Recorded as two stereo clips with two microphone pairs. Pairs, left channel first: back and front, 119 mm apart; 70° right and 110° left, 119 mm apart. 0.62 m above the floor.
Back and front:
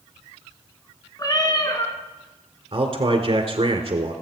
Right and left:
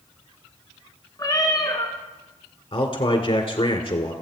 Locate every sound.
1.2 s a cat meowing: 125° right, 2 m
2.7 s a man speaking: 35° right, 1.8 m